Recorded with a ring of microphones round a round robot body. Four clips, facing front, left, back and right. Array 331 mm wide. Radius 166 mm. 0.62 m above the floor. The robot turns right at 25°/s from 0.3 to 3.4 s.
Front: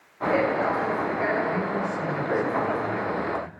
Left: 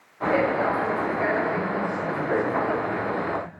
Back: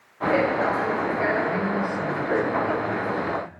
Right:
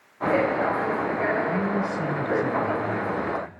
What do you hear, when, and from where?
1.4 s a man speaking: 105° right, 3.5 m; by 3.5 s 55° right, 3.5 m